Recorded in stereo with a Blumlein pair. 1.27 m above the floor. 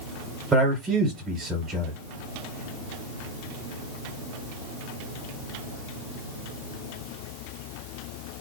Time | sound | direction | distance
0.5 | a man speaking | 15° right | 1.0 m